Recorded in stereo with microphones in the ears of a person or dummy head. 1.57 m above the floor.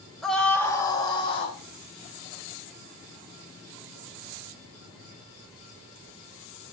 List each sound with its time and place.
0.2 s a scream: centre (ahead or behind), 2 m; by 1.6 s 35° left (ahead or behind), 3.5 m